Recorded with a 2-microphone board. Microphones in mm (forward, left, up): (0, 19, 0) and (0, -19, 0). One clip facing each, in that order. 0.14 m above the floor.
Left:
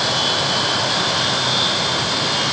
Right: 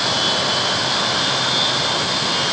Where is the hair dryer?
No hair dryer in this recording.